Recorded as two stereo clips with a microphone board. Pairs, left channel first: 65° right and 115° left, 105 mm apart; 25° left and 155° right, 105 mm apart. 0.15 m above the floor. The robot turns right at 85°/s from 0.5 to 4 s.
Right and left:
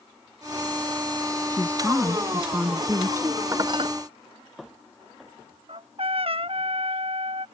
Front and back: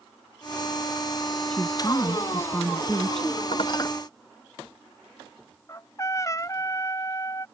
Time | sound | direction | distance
1.5 | a woman speaking | 40° right | ?
3.5 | dishes clattering | 50° left | ?
5.7 | a trumpet | 80° left | ?